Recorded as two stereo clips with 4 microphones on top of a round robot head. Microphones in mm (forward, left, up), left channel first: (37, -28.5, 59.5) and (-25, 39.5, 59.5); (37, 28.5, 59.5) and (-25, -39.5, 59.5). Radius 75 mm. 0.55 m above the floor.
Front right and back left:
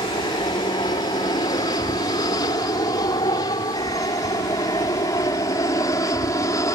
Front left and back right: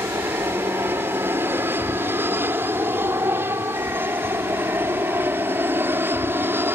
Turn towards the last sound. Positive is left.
turn(degrees=-80)